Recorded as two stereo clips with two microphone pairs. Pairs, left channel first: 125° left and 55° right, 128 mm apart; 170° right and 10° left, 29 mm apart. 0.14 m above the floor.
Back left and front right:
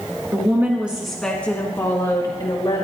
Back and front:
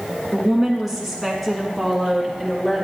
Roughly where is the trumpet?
I don't hear a trumpet.